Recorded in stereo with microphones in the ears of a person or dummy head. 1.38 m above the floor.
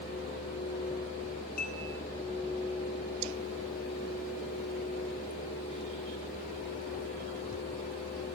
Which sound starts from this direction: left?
Dishes clattering, at 1.6 s.